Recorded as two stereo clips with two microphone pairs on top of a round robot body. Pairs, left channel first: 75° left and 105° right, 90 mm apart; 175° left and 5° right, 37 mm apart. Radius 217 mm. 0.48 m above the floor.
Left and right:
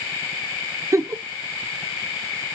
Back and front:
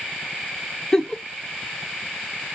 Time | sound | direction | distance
0.9 | a giggle | 110° right | 0.6 m